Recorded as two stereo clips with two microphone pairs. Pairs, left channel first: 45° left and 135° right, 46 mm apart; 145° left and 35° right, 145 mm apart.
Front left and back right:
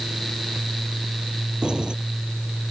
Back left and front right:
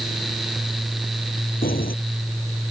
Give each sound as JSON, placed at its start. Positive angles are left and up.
{"t": 1.6, "sound": "keys jangling", "azimuth_deg": 155}